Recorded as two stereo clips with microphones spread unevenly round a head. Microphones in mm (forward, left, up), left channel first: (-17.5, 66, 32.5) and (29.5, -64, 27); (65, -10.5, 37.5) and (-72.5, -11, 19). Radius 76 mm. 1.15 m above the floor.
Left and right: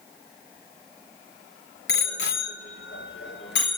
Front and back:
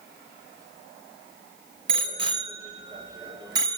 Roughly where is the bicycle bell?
Behind left.